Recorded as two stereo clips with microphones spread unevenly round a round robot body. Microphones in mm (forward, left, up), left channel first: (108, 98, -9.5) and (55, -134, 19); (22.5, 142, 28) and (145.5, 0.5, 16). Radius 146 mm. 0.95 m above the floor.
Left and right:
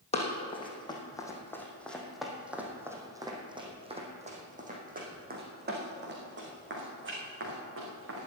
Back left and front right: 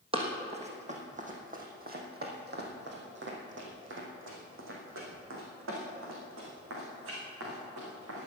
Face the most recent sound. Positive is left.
turn(degrees=-75)